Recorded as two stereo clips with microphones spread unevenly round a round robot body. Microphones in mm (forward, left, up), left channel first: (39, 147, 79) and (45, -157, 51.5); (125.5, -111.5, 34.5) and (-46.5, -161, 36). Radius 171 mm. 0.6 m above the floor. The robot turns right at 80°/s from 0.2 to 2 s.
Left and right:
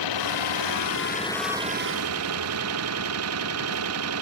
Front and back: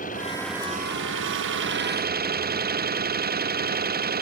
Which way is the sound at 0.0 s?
85° left.